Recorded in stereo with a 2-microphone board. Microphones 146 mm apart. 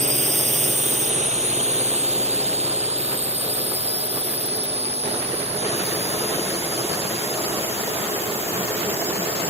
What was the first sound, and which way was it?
A drone, 55° right (ahead or behind).